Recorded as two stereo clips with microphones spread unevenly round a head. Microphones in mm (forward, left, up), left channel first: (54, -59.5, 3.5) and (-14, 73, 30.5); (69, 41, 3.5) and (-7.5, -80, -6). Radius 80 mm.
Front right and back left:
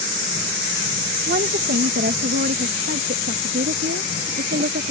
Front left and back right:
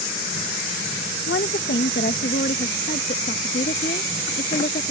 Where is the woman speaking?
90° left; by 4.9 s 100° left.